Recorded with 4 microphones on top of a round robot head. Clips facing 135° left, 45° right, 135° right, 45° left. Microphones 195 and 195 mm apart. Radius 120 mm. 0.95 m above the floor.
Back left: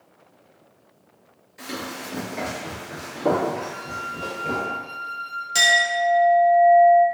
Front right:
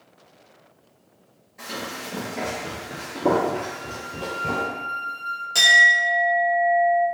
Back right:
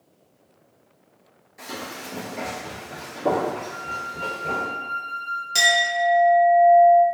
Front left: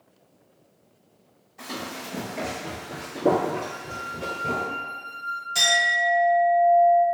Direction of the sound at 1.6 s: 175° left.